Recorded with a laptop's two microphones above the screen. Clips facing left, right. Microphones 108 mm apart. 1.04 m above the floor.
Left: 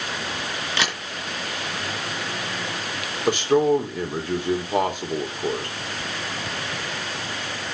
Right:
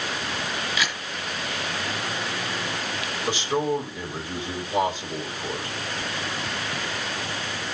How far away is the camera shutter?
About 4 m.